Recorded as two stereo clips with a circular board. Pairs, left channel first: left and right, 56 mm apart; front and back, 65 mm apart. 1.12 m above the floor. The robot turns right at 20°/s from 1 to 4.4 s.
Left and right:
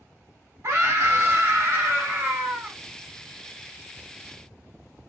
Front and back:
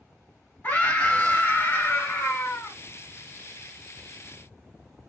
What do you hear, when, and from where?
0.6 s a scream: 65° right, 1.9 m; by 2.8 s 30° right, 1.9 m